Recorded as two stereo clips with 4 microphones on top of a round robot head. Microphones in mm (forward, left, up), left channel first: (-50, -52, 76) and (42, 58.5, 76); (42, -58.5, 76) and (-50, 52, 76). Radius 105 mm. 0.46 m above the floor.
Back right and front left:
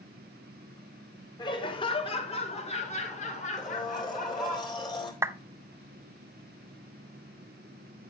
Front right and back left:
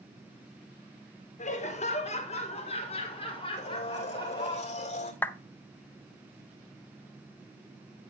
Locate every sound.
1.4 s laughter: 75° right, 2 m; by 4.6 s 105° right, 3 m
3.6 s a blender: 75° right, 2 m
5.2 s a clap: 5° left, 0.7 m